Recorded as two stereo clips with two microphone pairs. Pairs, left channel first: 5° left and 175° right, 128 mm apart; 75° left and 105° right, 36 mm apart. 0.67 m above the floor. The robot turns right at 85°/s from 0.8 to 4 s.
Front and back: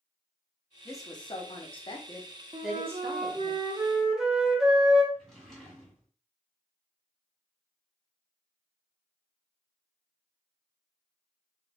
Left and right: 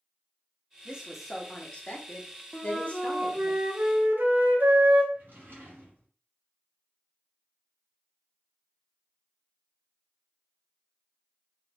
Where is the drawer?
80° right, 1.6 m.